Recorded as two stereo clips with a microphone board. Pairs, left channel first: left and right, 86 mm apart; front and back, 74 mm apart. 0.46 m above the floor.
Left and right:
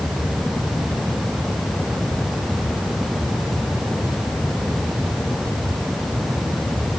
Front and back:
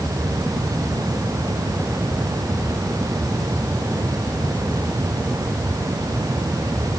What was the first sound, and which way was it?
Only background noise.